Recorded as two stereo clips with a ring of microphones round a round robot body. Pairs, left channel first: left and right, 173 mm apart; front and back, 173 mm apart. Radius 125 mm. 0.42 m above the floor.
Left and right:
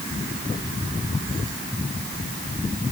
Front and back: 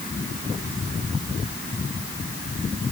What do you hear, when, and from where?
Only background noise.